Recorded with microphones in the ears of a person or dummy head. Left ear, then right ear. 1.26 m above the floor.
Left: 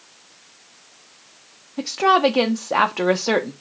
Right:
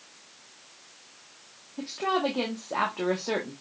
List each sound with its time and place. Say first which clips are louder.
1.8 s a woman speaking: left 11 dB; 85° left, 0.6 m